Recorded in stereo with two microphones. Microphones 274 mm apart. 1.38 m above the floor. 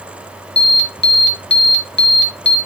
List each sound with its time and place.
0.6 s an alarm: 40° left (ahead or behind), 1.3 m